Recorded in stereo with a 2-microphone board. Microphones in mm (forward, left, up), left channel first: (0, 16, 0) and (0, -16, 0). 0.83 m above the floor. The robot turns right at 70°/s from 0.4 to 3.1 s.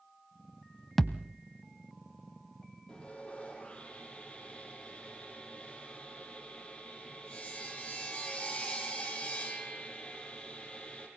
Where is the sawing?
20° left (ahead or behind), 6.5 m; by 11.1 s 35° left (ahead or behind), 6.5 m.